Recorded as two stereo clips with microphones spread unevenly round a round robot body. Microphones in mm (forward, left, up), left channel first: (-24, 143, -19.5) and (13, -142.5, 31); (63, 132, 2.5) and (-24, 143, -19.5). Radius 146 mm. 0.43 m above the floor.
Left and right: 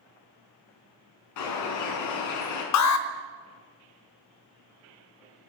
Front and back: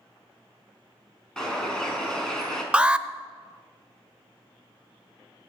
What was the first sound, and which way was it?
A bird, 75° left.